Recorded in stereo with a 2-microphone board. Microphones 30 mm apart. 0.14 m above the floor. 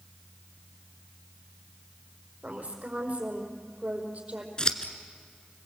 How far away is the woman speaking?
About 4.5 m.